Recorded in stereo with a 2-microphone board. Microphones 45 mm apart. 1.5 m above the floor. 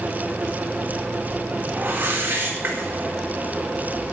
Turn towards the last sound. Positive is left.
turn(degrees=-60)  # may be behind; listen again after turning